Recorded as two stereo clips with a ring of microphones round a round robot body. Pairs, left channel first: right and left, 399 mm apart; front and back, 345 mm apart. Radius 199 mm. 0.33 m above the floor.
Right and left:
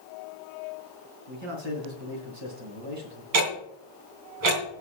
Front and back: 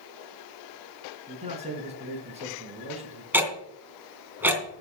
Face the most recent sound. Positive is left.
turn(degrees=95)